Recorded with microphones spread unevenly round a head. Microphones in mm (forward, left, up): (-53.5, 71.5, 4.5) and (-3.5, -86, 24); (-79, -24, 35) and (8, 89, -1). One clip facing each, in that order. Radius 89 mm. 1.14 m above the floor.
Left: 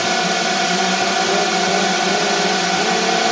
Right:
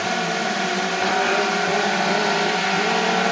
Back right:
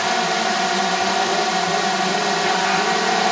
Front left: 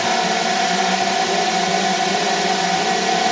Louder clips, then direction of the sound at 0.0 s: Left 4 dB, front left 2 dB; 105° left.